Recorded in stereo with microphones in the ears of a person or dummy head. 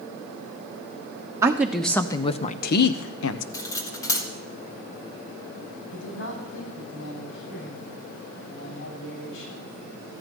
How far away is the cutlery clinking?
About 2.5 m.